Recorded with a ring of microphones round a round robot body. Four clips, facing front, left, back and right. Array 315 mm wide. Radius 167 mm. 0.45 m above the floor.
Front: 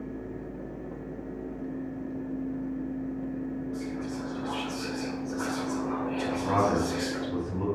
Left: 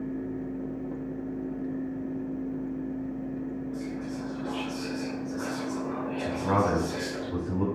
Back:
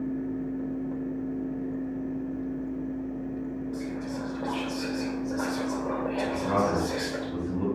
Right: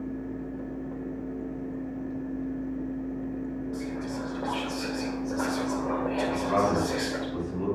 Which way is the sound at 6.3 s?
75° left.